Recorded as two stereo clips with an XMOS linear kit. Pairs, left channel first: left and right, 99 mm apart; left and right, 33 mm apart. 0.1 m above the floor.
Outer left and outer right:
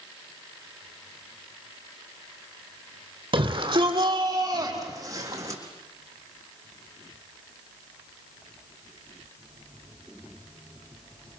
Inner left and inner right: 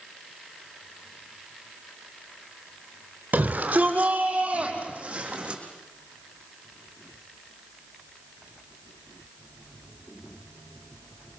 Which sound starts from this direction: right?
A shout, at 3.3 s.